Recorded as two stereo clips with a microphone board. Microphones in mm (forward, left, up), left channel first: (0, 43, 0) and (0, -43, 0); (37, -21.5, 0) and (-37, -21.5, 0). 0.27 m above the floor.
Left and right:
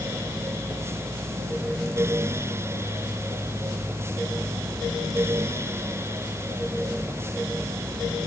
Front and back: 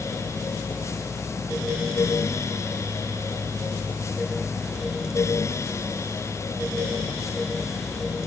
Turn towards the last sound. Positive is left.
No sound to turn to.